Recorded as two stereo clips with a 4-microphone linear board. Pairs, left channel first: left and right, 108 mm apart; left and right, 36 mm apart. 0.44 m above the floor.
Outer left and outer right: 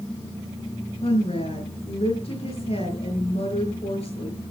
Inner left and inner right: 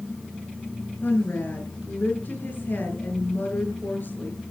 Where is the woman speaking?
65° left (ahead or behind), 7.5 m.